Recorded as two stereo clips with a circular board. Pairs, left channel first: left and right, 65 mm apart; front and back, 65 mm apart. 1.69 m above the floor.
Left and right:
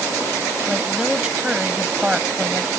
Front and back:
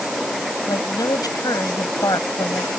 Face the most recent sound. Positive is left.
turn(degrees=-15)